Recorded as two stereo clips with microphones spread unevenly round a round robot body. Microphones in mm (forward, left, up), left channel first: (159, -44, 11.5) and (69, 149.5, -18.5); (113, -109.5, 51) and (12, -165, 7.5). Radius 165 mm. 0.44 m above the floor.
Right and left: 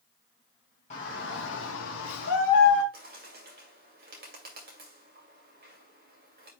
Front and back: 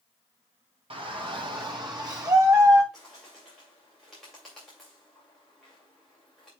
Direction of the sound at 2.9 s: 135° left.